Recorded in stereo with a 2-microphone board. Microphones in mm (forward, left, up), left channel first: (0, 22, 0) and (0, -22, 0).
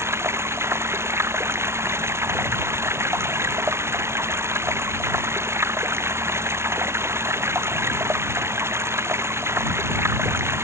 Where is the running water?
75° right (ahead or behind).